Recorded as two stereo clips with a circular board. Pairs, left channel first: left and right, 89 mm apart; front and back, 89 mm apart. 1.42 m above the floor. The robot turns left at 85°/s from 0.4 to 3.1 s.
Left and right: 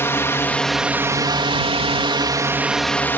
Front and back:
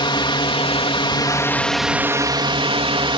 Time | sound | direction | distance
0.0 | a drone | 25° left | ?